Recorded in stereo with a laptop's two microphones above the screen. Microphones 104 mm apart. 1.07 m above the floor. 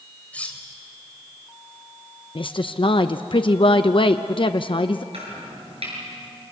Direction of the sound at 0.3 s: 15° left (ahead or behind).